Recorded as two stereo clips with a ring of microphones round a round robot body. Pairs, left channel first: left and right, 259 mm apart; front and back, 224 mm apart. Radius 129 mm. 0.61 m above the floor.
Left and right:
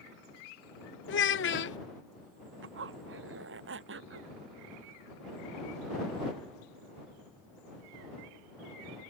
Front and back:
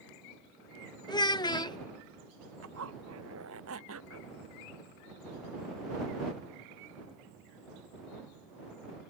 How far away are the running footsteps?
No running footsteps in this recording.